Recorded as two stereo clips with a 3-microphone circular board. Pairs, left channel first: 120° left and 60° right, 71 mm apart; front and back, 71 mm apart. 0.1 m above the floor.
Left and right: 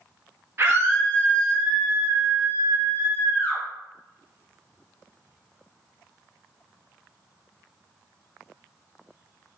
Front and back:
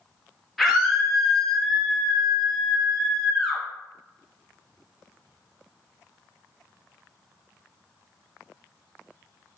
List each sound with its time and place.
0.6 s a scream: 90° right, 1.5 m